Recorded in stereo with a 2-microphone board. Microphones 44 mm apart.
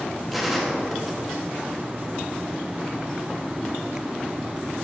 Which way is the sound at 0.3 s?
5° right (ahead or behind).